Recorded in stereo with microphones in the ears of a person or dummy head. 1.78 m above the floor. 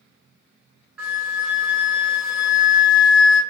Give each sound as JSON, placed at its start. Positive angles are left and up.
{"t": 1.0, "sound": "a flute", "side_deg": -10, "distance_m": 0.8}